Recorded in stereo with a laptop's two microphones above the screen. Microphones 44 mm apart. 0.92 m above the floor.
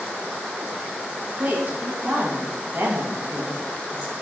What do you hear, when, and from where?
1.4 s a woman speaking: 40° right (ahead or behind), 0.7 m